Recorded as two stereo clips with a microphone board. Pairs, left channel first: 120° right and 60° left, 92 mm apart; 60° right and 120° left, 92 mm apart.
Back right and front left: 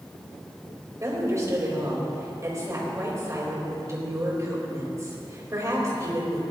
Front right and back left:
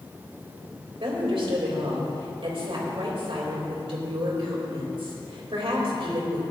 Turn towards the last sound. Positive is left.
turn(degrees=115)